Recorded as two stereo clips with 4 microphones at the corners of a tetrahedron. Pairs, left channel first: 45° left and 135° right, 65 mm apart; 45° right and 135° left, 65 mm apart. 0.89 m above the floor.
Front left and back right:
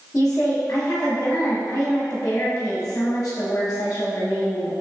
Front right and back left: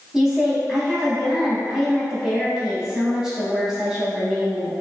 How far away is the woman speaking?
About 0.8 m.